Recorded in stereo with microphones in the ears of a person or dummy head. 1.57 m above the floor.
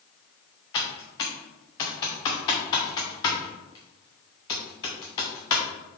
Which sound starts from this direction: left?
Typing on a keyboard, at 0.7 s.